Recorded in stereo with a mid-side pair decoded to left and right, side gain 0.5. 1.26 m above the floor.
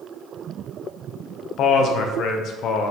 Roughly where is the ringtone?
I don't hear a ringtone.